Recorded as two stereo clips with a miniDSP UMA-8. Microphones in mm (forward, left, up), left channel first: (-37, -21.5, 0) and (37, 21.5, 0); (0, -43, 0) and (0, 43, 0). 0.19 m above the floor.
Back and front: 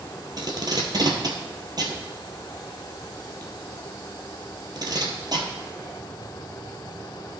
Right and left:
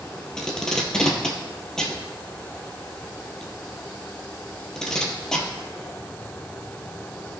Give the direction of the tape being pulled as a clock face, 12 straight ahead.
12 o'clock.